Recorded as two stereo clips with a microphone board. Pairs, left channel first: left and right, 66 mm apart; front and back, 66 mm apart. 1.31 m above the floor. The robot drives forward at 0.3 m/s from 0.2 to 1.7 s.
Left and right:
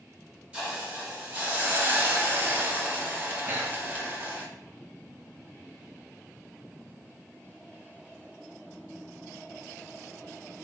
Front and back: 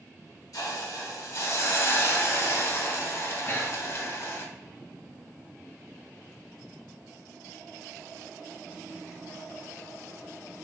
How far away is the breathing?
About 0.5 m.